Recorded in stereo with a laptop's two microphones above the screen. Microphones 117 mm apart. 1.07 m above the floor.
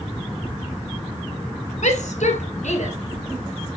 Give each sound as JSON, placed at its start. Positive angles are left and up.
{"t": 1.8, "sound": "a shout", "side_deg": 85, "distance_m": 3.0}